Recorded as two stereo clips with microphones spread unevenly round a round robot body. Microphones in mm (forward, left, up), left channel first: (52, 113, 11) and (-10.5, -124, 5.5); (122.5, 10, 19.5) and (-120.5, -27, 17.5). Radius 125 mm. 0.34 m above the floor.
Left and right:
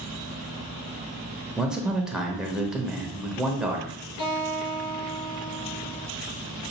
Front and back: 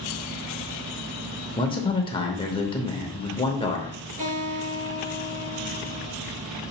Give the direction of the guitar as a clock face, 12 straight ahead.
8 o'clock.